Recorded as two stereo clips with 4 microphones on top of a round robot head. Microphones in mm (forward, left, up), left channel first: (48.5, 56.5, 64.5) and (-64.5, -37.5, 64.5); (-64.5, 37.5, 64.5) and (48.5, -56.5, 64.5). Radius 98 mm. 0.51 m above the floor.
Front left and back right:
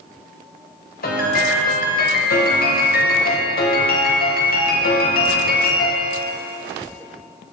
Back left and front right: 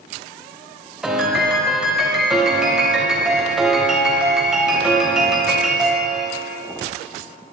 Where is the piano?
45° left, 3.5 m.